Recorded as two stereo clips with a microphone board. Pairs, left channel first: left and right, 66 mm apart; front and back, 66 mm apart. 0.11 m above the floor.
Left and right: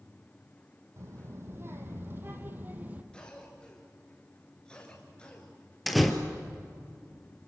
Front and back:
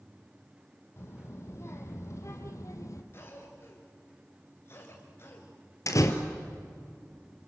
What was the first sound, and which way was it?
A child speaking, 45° right.